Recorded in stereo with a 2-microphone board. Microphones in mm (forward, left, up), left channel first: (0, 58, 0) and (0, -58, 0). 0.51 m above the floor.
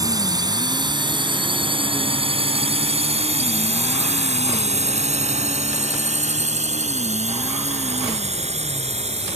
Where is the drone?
35° right (ahead or behind); by 9.4 s 65° right (ahead or behind).